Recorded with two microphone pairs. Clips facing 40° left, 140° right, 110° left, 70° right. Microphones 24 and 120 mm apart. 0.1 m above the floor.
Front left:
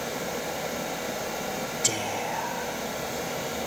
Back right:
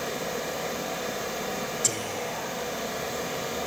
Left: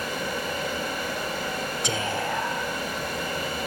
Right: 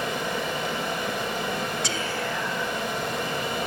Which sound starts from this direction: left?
Whispering, at 1.8 s.